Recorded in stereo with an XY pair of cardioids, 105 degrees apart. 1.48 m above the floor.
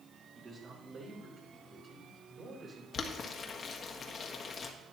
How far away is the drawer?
No drawer in this recording.